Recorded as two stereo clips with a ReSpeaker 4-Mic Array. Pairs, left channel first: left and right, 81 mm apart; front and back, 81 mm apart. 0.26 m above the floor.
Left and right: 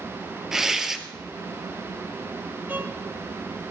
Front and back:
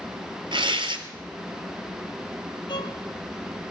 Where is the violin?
25° right, 1.9 m.